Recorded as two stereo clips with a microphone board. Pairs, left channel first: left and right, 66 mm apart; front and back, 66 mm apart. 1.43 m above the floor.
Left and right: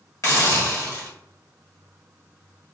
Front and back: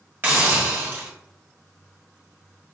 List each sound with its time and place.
0.2 s a hiss: 125° left, 1.3 m